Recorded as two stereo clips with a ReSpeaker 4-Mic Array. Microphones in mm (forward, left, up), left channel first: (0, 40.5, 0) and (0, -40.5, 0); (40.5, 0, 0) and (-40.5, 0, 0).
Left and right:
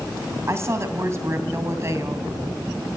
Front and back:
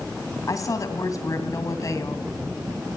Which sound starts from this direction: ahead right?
A woman speaking, at 0.5 s.